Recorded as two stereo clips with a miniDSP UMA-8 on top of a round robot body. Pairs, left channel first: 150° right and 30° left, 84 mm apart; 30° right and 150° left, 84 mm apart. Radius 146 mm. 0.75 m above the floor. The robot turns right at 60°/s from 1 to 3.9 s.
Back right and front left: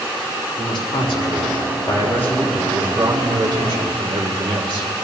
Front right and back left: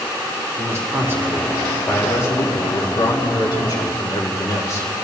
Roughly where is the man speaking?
Behind right.